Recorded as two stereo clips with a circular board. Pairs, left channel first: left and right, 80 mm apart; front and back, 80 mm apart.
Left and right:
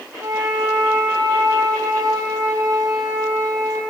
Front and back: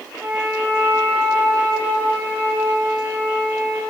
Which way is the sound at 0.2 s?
115° right.